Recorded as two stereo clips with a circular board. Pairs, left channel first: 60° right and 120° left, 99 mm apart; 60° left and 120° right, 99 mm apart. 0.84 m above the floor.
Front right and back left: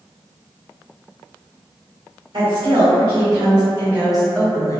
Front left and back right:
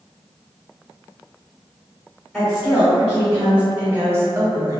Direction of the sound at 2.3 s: 140° left.